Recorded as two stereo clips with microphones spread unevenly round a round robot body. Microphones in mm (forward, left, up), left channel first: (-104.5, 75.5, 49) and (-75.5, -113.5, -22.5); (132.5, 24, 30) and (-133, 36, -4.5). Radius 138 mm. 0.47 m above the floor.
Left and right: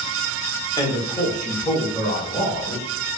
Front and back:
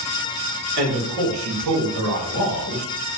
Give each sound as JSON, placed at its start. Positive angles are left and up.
{"t": 0.8, "sound": "a man speaking", "azimuth_deg": 180, "distance_m": 1.1}